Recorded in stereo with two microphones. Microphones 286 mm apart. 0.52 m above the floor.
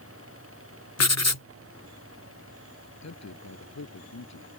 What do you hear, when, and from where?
1.0 s writing: 65° left (ahead or behind)
3.0 s a man speaking: 70° left (ahead or behind)